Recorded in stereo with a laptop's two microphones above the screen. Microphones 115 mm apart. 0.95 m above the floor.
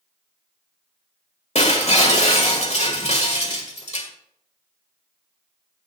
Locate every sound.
1.6 s breaking glass: 75° left (ahead or behind), 1.7 m